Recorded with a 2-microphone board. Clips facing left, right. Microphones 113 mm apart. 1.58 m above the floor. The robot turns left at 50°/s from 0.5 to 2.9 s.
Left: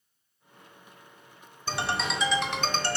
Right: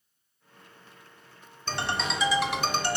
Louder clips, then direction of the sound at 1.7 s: Left 1 dB; 10° left (ahead or behind).